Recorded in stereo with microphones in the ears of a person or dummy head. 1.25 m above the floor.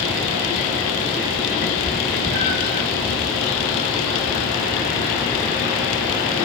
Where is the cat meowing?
20° right (ahead or behind), 0.5 m.